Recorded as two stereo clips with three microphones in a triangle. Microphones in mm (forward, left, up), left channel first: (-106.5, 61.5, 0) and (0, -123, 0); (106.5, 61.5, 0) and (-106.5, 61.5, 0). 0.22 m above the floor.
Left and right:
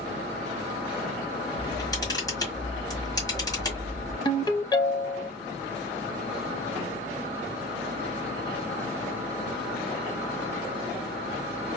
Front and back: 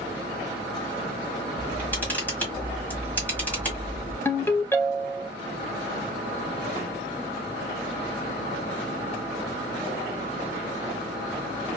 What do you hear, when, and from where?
1.6 s a camera shutter: 70° left, 1.6 m
4.2 s a ringtone: 70° left, 0.6 m